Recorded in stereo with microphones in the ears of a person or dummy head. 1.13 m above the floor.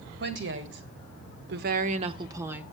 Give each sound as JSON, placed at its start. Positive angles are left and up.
{"t": 0.2, "sound": "a woman speaking", "side_deg": -55, "distance_m": 1.5}